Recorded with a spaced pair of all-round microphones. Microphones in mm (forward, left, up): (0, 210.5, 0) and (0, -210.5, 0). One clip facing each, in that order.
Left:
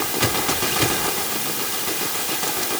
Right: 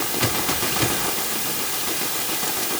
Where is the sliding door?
I don't hear a sliding door.